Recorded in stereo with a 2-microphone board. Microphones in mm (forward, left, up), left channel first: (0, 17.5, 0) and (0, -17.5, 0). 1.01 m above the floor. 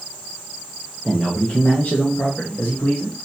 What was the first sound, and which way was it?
A man speaking, 25° left (ahead or behind).